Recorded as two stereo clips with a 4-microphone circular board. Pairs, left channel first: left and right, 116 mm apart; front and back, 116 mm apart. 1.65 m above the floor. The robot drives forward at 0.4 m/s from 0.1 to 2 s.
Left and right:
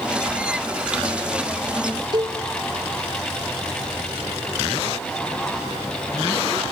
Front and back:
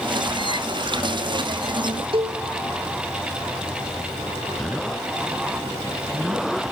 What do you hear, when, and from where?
2.1 s a cowbell: 140° right, 1.8 m